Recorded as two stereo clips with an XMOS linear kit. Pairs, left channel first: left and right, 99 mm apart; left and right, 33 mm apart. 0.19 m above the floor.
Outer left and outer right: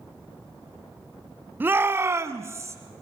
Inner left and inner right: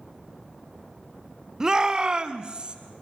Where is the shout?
20° right (ahead or behind), 1.0 m; by 2.8 s 30° right (ahead or behind), 1.8 m.